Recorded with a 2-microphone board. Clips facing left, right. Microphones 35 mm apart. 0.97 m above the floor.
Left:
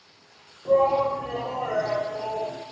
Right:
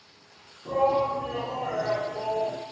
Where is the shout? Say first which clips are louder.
Left 4 dB; 40° left (ahead or behind), 0.8 m; by 2.6 s 15° left (ahead or behind), 0.9 m.